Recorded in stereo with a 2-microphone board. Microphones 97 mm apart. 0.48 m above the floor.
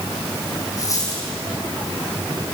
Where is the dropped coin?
35° left (ahead or behind), 8 m.